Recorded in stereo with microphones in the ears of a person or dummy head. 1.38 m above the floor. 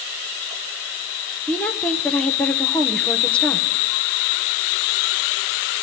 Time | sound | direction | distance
1.5 | a woman speaking | 5° left (ahead or behind) | 1.1 m